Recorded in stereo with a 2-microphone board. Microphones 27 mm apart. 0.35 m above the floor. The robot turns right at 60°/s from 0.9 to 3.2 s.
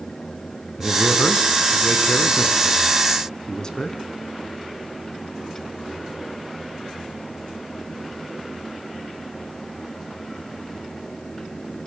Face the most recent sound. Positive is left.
turn(degrees=150)